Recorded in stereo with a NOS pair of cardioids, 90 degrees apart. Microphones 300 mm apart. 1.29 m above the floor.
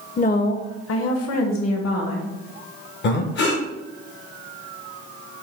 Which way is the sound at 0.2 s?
25° left.